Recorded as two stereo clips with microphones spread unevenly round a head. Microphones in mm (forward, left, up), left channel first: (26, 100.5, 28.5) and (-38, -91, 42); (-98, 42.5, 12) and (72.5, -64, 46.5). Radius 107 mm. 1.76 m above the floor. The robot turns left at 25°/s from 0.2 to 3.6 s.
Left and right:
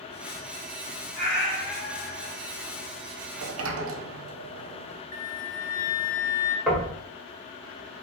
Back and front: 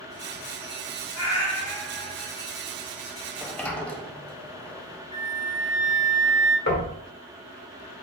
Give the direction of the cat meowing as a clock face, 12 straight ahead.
5 o'clock.